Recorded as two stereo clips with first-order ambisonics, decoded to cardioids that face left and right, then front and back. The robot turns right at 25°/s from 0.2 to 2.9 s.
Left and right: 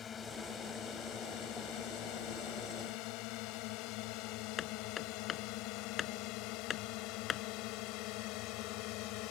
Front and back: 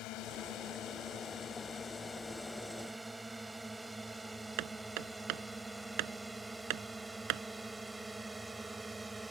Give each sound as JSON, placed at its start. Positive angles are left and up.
{"t": 0.0, "sound": "a drone", "azimuth_deg": 25}
{"t": 4.6, "sound": "hammering", "azimuth_deg": 155}